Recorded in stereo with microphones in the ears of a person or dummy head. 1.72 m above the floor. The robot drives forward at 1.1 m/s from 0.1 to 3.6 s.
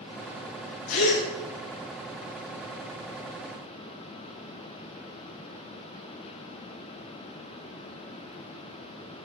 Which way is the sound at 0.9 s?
80° left.